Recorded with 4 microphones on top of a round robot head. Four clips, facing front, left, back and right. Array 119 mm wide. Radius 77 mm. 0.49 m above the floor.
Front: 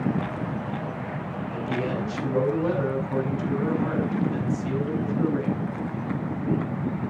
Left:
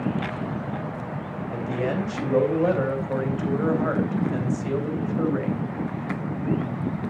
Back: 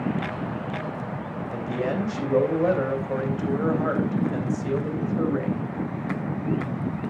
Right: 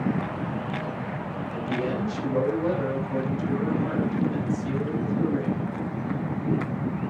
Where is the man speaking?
140° left, 3.5 m.